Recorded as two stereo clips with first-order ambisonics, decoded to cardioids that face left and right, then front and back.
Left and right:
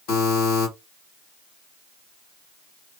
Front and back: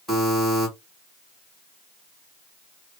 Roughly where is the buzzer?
Left.